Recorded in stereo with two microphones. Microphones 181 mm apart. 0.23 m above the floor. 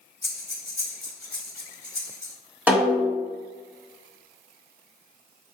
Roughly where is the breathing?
Centre.